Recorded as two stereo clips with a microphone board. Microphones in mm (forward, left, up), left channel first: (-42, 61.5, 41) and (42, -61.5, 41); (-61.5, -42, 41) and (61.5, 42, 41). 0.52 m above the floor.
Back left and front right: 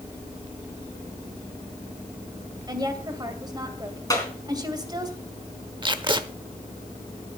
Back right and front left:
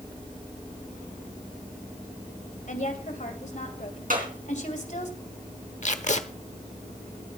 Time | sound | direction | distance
2.7 | a woman speaking | 115° right | 2.5 m
4.1 | a clap | 55° left | 4 m
5.8 | tape being pulled | 110° right | 1.0 m